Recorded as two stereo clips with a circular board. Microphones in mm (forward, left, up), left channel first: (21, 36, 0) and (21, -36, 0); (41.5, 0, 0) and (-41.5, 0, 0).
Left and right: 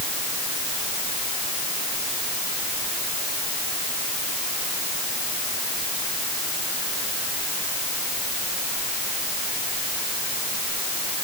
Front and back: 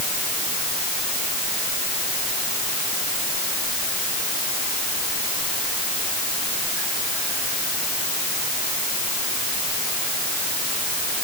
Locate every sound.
Only background noise.